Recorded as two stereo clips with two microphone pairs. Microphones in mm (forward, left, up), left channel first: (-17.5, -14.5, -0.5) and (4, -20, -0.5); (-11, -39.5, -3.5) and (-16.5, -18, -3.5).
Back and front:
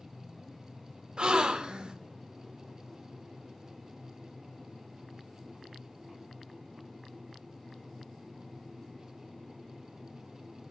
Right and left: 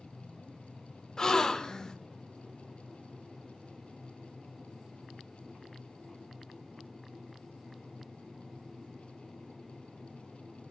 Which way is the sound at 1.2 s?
25° right.